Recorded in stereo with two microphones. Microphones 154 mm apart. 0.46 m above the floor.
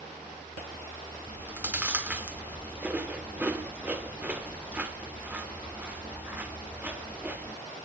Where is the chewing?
10° right (ahead or behind), 0.6 m.